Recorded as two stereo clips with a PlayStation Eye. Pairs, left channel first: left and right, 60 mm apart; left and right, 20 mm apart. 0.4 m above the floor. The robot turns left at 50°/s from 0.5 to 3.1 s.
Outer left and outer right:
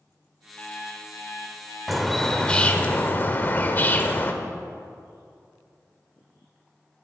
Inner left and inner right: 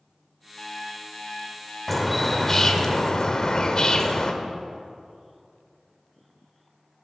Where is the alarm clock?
160° left, 1.9 m; by 2.9 s 45° left, 1.9 m.